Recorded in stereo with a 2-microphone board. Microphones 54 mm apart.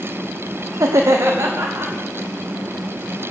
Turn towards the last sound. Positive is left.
turn(degrees=-75)  # may be behind; listen again after turning